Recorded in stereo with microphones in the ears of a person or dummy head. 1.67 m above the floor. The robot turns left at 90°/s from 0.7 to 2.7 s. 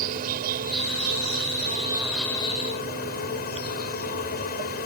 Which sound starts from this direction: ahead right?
An insect, at 0.0 s.